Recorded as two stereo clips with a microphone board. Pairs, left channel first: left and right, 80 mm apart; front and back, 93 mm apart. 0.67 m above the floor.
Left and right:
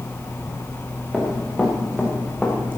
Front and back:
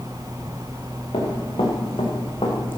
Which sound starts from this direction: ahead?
Running footsteps, at 1.1 s.